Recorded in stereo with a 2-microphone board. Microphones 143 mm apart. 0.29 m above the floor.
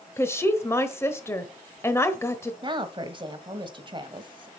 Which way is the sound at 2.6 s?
35° right (ahead or behind).